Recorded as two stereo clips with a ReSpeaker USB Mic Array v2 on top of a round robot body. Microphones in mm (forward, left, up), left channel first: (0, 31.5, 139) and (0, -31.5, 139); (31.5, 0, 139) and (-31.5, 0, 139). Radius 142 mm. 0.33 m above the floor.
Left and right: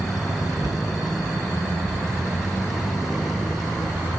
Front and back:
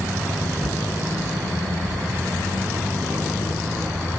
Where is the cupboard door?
105° right, 3.5 m.